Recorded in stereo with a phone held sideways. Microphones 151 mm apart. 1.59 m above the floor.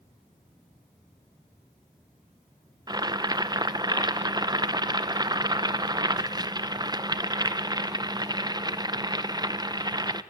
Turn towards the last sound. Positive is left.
turn(degrees=-25)  # may be behind; listen again after turning